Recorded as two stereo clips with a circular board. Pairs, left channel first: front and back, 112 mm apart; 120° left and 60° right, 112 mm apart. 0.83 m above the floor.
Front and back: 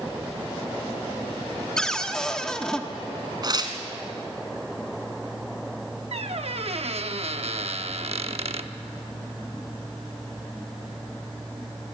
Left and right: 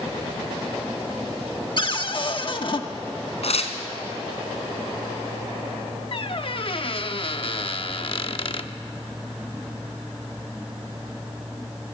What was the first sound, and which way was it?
A cupboard door, 85° left.